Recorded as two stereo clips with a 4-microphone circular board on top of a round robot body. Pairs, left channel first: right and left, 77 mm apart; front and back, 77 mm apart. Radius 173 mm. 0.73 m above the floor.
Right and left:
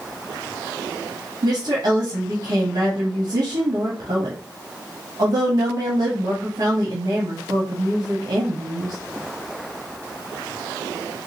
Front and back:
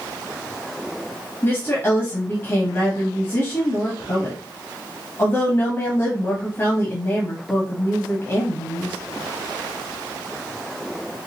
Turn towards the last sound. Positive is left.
turn(degrees=60)